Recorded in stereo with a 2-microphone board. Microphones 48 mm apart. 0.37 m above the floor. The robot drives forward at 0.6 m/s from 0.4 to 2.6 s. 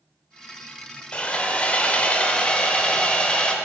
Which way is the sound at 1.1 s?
25° left (ahead or behind).